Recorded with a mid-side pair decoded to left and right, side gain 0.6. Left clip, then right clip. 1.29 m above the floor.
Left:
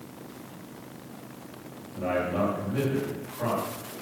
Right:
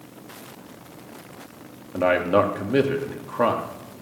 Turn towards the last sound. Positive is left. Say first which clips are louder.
# right 9 dB
turn(degrees=-65)